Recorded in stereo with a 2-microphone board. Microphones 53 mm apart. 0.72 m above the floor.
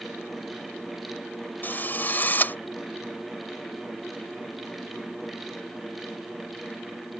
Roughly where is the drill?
Left.